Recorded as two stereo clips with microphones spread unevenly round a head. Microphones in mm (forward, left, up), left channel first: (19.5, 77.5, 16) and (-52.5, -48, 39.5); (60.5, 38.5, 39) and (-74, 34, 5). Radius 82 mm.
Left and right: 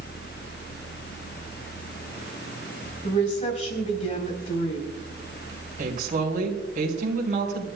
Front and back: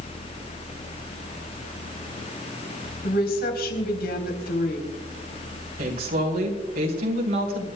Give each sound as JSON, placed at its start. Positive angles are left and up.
{"t": 3.0, "sound": "a woman speaking", "azimuth_deg": 10, "distance_m": 3.5}
{"t": 5.8, "sound": "a woman speaking", "azimuth_deg": -155, "distance_m": 3.5}